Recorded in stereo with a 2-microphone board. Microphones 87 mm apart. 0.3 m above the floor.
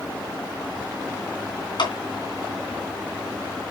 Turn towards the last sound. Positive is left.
turn(degrees=65)  # may be behind; listen again after turning